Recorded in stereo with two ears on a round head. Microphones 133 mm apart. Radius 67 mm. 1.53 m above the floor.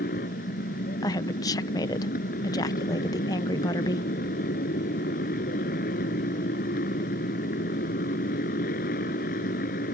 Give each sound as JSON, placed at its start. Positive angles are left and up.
{"t": 0.0, "sound": "a motorcycle", "side_deg": 60}
{"t": 1.0, "sound": "a woman speaking", "side_deg": 25}